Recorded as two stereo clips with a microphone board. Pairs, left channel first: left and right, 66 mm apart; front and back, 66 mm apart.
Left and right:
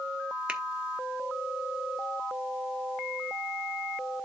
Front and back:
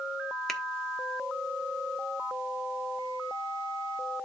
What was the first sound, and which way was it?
A finger snap, 75° right.